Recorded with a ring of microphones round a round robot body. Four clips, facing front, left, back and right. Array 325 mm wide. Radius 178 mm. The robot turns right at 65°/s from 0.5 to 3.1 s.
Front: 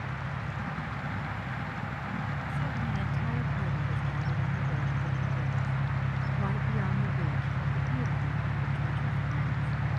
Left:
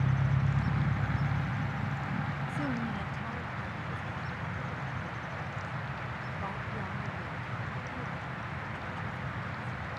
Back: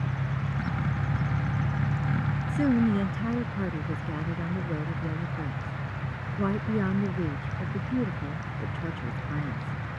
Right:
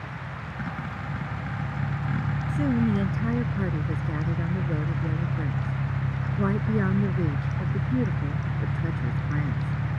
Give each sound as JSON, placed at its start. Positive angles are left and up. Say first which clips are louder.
{"t": 0.0, "sound": "an engine running", "louder": "left 5 dB, back 4 dB", "azimuth_deg": 120}
{"t": 2.5, "sound": "a woman speaking", "louder": "right 13 dB, back 15 dB", "azimuth_deg": -165}